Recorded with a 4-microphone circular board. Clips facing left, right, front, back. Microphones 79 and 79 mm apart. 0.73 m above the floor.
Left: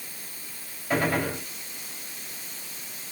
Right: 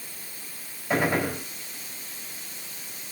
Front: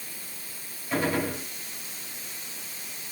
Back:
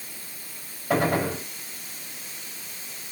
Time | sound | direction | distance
0.9 | a gunshot | 170° right | 4 m